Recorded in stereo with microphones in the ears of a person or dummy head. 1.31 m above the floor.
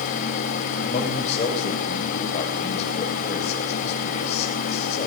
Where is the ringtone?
No ringtone in this recording.